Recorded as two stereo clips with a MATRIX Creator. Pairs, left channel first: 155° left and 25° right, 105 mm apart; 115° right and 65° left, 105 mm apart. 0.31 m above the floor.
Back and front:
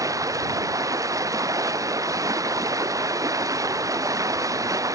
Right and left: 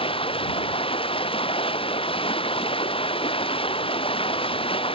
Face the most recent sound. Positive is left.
turn(degrees=-80)